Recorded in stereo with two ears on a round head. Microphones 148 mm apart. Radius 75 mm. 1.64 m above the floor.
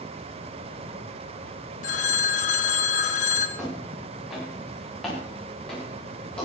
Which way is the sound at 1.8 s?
50° left (ahead or behind).